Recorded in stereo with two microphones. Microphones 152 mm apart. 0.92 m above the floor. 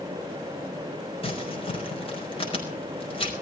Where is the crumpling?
40° left (ahead or behind), 5 m.